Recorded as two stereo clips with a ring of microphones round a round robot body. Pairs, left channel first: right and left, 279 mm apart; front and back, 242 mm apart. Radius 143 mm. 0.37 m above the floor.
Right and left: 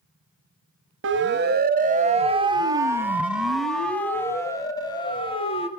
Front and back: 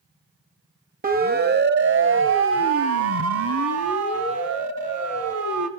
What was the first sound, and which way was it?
A siren, 130° left.